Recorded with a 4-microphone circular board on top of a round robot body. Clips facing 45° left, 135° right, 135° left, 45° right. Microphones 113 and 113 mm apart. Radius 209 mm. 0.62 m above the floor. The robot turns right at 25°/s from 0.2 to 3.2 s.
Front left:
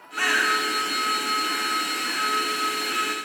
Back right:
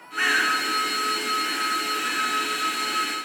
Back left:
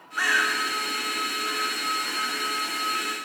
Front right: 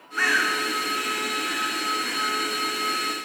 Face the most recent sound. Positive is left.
turn(degrees=135)